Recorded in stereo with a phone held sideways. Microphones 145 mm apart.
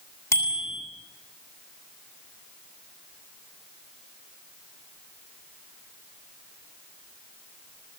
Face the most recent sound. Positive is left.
turn(degrees=20)  # may be behind; listen again after turning